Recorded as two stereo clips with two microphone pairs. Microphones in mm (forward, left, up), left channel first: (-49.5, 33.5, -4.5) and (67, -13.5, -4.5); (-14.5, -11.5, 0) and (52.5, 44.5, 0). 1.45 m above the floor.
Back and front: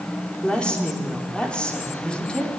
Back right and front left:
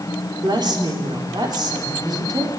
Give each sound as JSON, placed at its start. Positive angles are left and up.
{"t": 0.4, "sound": "a woman speaking", "azimuth_deg": 75, "distance_m": 4.5}